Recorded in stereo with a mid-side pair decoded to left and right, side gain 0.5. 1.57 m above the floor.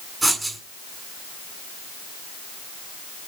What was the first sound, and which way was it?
Writing, 15° right.